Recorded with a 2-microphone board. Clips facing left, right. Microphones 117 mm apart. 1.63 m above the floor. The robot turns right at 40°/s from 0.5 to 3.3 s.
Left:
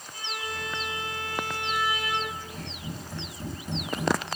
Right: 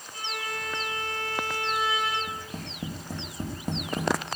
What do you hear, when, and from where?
0.1 s a violin: 140° right, 7.5 m; by 2.2 s 75° right, 7.5 m
2.3 s tapping: 85° right, 3 m; by 4.1 s 45° right (ahead or behind), 3 m